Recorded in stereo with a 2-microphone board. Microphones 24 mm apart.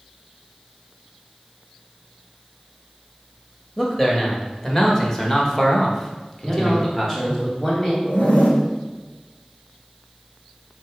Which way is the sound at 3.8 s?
20° left (ahead or behind).